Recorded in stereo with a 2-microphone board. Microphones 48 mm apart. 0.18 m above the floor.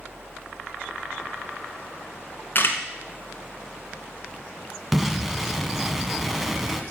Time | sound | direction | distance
2.5 | a camera shutter | 40° left (ahead or behind) | 1.6 m
4.9 | an explosion | 5° right (ahead or behind) | 0.9 m